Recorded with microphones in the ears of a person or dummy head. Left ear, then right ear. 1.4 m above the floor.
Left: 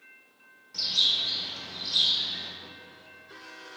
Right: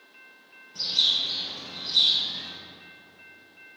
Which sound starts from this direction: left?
A bird, at 0.7 s.